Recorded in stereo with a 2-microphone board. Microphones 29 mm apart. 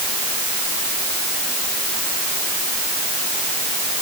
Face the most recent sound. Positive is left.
No sound to turn to.